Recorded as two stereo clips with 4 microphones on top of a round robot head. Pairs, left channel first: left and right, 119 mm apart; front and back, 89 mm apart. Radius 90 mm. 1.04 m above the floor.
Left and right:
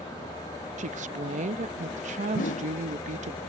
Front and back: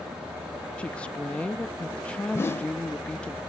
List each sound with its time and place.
0.8 s a woman speaking: 80° right
2.3 s a whoosh: 60° left